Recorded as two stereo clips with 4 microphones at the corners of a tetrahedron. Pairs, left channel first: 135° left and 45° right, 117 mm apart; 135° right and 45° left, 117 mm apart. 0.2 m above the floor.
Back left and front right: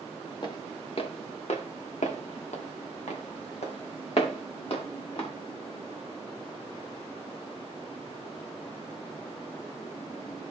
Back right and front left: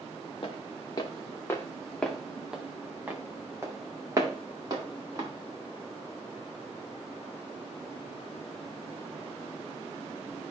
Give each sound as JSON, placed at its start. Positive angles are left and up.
{"t": 0.4, "sound": "footsteps", "azimuth_deg": -175, "distance_m": 2.0}